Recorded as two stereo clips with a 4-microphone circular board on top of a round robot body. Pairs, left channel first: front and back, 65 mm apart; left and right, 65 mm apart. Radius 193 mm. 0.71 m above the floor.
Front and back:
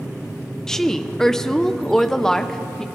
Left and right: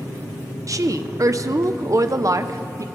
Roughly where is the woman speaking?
Right.